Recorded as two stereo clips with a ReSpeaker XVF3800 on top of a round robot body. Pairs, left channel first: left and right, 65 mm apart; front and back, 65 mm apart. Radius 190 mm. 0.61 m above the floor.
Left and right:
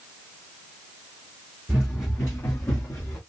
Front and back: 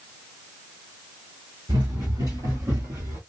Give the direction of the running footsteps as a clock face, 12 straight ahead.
6 o'clock.